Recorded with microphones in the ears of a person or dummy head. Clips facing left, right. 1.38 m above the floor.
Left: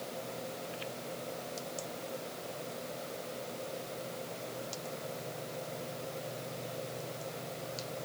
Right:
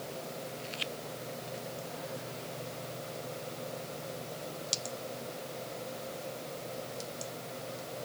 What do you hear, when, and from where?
Only background noise.